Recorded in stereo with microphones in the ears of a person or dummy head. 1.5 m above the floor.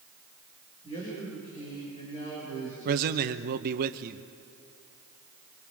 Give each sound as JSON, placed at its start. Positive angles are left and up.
{"t": 0.8, "sound": "a man speaking", "side_deg": 35, "distance_m": 6.0}
{"t": 2.9, "sound": "a man speaking", "side_deg": -50, "distance_m": 1.1}